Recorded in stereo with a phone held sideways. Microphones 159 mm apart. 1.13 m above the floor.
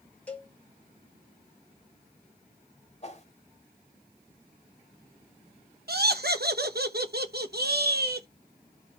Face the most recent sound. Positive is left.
turn(degrees=-80)